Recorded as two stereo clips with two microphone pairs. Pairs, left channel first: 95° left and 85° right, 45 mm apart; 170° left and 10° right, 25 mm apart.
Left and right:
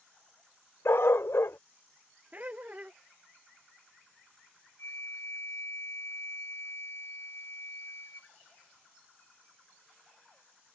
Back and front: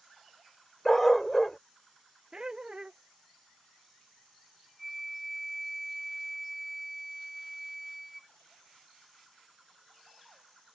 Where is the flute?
80° left.